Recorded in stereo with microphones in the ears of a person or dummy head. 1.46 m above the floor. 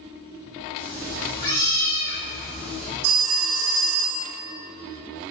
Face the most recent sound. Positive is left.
turn(degrees=-70)  # may be behind; listen again after turning